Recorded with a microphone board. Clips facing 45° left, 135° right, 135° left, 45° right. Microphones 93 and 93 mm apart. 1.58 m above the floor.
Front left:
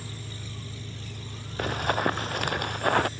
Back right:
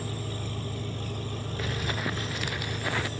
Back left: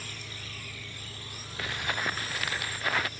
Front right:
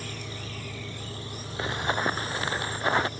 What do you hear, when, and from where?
0.0 s an engine running: 100° right
1.6 s running footsteps: 15° left